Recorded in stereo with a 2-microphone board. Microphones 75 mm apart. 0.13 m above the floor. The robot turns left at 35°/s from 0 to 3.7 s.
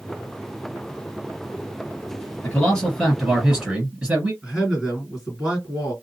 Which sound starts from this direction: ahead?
A man speaking, at 2.4 s.